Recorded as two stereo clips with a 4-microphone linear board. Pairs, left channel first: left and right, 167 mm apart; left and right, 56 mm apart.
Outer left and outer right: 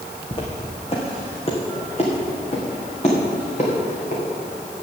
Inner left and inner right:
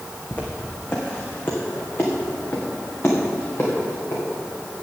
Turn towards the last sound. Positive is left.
turn(degrees=40)  # may be behind; listen again after turning